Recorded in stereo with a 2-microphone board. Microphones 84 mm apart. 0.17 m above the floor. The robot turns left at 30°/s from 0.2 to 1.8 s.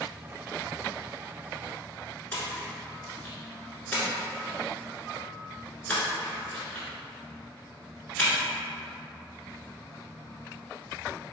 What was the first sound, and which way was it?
A splash, 20° left (ahead or behind).